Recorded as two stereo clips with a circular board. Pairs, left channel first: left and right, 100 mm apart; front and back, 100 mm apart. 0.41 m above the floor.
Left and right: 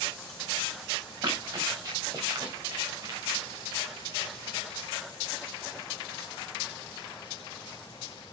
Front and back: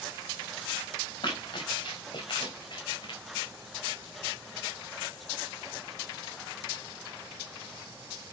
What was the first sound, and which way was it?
Running footsteps, 45° right.